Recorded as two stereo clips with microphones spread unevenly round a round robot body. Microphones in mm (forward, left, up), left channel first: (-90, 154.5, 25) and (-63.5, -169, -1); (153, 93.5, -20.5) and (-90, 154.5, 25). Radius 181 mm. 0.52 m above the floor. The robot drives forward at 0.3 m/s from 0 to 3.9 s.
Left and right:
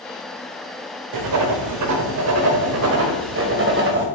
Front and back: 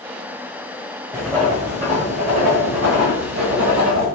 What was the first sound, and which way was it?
Writing, 105° right.